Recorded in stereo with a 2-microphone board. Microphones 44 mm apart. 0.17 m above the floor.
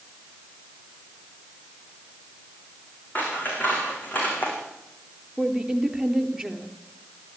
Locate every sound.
3.1 s scissors: 40° left (ahead or behind), 8 m
5.4 s a woman speaking: 5° right (ahead or behind), 3 m